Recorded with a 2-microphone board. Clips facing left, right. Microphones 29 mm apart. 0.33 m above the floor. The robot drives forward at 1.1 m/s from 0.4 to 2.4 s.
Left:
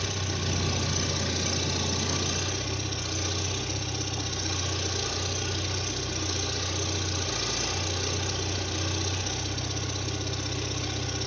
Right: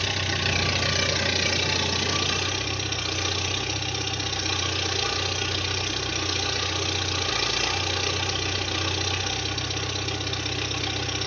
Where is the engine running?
80° right, 2 m; by 11.3 s 50° right (ahead or behind), 3 m.